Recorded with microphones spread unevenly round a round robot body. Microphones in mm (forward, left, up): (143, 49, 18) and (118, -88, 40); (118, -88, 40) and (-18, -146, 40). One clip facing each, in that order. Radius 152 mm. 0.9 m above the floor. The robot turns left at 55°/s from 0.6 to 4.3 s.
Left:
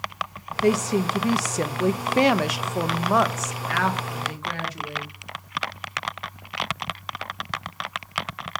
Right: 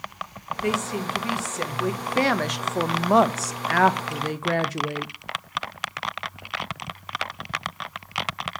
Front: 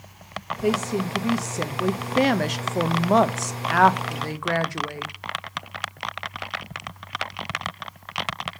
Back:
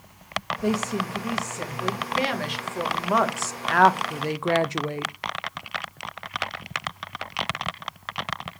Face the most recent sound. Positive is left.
turn(degrees=-95)